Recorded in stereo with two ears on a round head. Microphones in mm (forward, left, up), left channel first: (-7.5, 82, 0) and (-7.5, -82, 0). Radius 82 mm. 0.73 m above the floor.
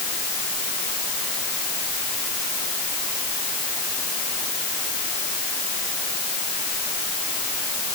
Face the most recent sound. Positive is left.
No sound to turn to.